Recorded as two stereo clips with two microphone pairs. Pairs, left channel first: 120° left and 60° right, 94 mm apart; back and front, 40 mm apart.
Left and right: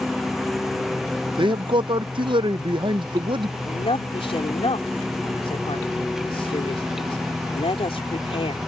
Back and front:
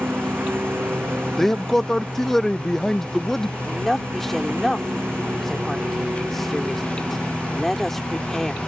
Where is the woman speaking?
95° left.